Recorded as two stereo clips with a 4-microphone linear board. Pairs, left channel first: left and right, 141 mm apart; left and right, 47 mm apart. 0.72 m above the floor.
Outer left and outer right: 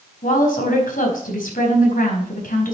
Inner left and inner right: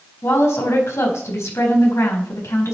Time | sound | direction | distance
0.2 | a woman speaking | 80° left | 4.5 m